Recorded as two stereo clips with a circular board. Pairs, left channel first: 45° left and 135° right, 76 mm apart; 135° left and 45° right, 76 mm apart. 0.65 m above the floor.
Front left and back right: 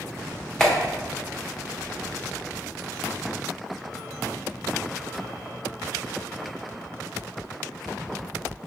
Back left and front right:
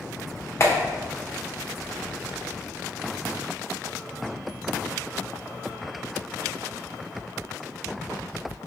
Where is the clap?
120° left, 0.9 m.